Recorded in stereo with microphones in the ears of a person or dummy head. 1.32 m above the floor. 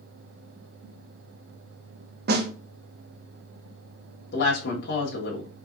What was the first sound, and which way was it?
A snare drum, 60° right (ahead or behind).